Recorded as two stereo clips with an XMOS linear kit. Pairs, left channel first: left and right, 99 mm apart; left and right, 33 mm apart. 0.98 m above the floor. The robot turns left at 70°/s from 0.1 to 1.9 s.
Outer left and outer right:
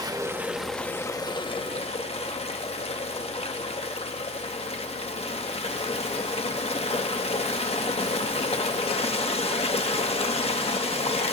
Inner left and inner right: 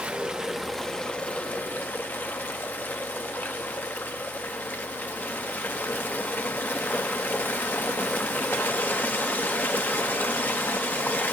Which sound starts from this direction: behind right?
Running water, at 0.0 s.